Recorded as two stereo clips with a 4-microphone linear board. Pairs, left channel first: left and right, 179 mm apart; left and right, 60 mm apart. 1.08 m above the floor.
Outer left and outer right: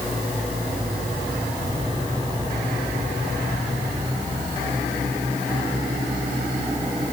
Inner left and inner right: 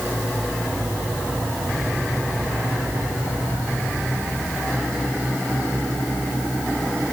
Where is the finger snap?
I don't hear a finger snap.